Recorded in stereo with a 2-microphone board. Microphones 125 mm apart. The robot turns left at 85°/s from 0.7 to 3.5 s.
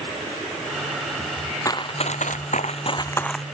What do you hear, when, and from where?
1.6 s running footsteps: 25° left (ahead or behind); by 3.5 s 5° right (ahead or behind)